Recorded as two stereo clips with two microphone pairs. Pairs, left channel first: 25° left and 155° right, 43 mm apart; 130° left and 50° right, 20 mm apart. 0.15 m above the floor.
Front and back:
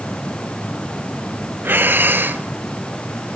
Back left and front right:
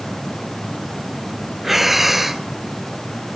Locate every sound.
1.6 s breathing: 120° right, 0.6 m